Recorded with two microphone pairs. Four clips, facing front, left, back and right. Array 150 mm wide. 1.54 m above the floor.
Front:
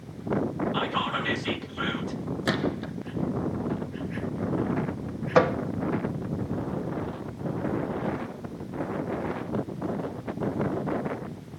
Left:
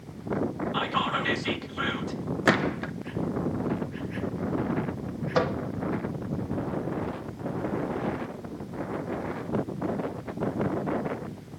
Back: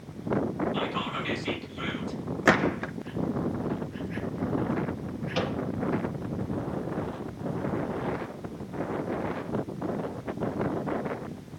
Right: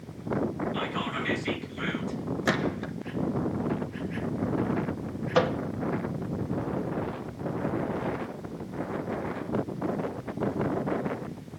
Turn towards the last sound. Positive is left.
turn(degrees=0)